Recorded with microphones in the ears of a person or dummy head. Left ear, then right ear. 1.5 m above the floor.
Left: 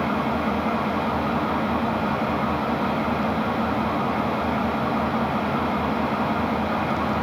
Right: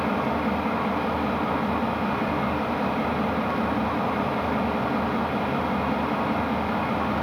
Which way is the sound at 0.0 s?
10° right (ahead or behind).